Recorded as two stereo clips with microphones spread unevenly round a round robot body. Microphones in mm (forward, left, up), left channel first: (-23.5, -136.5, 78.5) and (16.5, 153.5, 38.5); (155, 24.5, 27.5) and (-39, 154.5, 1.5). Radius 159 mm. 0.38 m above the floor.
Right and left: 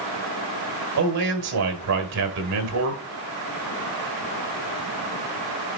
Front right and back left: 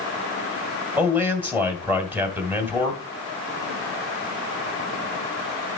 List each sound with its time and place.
1.0 s a man speaking: 65° left, 2.5 m